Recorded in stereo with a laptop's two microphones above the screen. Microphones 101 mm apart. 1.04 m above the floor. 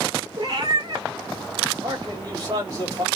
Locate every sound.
0.4 s a cat meowing: 40° right (ahead or behind), 1.5 m
1.8 s a man speaking: 35° right (ahead or behind), 3.5 m